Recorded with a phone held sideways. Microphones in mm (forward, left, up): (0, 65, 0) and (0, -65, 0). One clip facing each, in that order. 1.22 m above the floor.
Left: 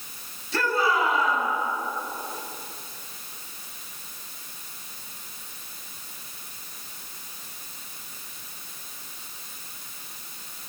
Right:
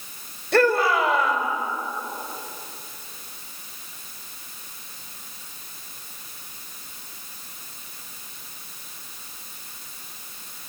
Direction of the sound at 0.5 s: 60° right (ahead or behind).